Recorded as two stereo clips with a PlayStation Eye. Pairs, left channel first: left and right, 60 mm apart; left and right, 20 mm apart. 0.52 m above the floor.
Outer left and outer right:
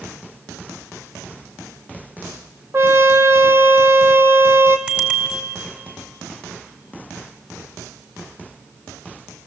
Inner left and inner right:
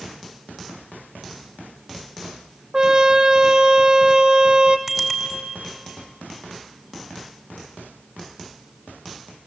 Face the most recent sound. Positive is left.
turn(degrees=-20)  # may be behind; listen again after turning